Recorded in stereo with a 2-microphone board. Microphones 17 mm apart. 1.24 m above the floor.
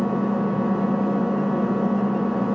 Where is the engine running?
50° right (ahead or behind), 3.5 m.